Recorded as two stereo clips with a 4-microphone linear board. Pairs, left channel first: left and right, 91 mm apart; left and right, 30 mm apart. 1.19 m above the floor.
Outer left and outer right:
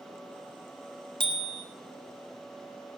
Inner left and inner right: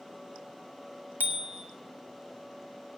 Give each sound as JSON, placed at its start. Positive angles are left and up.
{"t": 1.2, "sound": "a bicycle bell", "side_deg": -75, "distance_m": 2.5}